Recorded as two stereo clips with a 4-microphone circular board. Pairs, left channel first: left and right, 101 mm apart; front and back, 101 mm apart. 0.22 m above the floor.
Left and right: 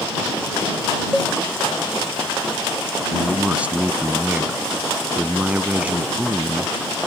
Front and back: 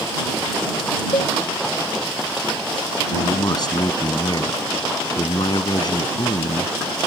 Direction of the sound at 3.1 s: 20° right.